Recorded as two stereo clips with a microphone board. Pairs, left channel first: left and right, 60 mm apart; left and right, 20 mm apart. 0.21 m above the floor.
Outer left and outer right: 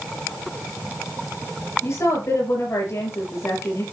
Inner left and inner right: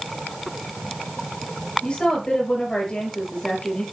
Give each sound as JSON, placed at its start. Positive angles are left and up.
{"t": 1.8, "sound": "a woman speaking", "side_deg": 55, "distance_m": 4.5}